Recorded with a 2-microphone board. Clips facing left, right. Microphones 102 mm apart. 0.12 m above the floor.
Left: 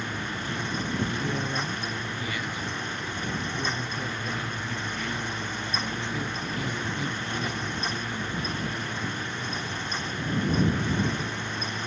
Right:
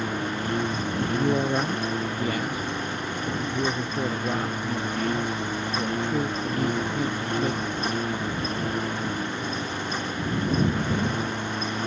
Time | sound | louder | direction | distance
0.0 | a lawn mower | right 5 dB | 50° right (ahead or behind) | ?
1.1 | a man speaking | right 7 dB | 45° right (ahead or behind) | ?